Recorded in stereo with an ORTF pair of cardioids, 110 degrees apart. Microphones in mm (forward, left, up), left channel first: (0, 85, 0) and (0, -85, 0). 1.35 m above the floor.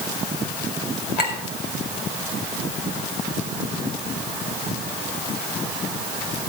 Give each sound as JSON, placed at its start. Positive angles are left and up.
{"t": 1.2, "sound": "a clink", "azimuth_deg": 70, "distance_m": 4.5}